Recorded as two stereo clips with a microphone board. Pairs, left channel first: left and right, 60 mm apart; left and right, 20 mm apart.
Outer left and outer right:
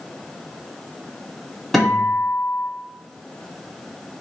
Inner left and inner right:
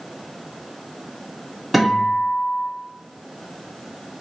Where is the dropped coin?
No dropped coin in this recording.